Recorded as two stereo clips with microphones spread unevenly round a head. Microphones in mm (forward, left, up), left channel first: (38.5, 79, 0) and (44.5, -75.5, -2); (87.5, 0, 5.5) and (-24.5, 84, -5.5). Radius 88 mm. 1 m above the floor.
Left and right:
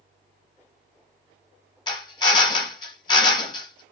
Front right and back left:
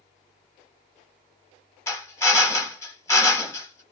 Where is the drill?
35° left, 1.1 m.